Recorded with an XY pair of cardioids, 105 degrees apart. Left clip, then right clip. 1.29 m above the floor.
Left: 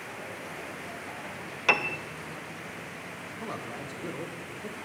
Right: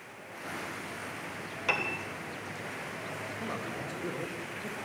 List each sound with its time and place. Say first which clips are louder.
1.7 s a piano: left 5 dB; 45° left, 0.9 m
3.4 s a man speaking: left 2 dB; 10° left, 1.4 m